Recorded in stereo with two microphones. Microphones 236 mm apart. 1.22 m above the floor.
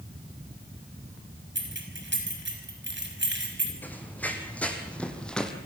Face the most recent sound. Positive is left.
turn(degrees=5)  # may be behind; listen again after turning